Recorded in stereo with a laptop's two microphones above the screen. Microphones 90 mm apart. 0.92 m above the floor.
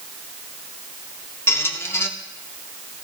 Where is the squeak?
25° left (ahead or behind), 0.6 m.